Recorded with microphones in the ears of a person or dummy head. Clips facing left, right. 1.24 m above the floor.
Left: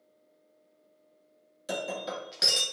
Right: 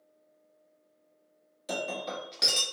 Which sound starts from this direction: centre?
Breaking glass, at 1.7 s.